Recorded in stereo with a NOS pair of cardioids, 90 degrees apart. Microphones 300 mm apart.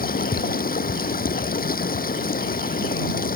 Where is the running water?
30° left.